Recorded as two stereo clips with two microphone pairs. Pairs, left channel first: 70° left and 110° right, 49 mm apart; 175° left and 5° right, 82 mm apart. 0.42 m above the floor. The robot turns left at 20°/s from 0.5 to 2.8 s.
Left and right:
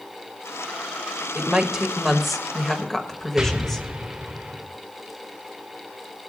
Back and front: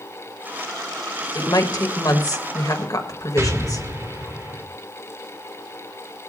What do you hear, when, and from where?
1.4 s a woman speaking: straight behind, 1.6 m; by 3.9 s 150° left, 1.6 m
3.4 s an explosion: 35° right, 1.5 m